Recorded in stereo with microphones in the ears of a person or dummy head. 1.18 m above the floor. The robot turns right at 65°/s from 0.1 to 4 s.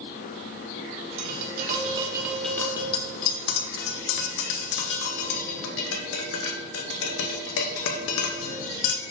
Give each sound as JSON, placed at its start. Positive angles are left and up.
{"t": 1.2, "sound": "tapping", "side_deg": -65, "distance_m": 0.6}